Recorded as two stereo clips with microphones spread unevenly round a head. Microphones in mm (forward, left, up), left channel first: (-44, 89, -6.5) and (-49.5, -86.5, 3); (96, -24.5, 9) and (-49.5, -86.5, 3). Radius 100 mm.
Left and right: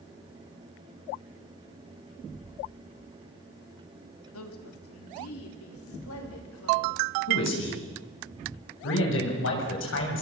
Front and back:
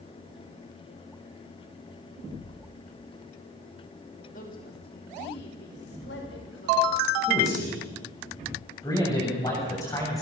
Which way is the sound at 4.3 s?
80° left.